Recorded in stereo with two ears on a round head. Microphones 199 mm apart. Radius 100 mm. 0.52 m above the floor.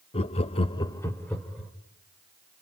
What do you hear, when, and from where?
0.1 s laughter: 30° left (ahead or behind), 1.0 m; by 1.7 s centre (ahead or behind), 1.8 m